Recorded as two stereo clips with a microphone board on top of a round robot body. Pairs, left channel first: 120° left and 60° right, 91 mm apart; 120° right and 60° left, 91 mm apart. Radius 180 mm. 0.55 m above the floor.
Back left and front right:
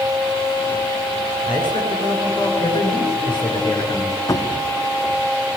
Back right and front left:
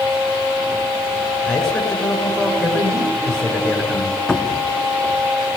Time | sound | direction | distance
1.5 | a man speaking | 155° left | 7.5 m
4.3 | a cupboard door | 160° left | 1.8 m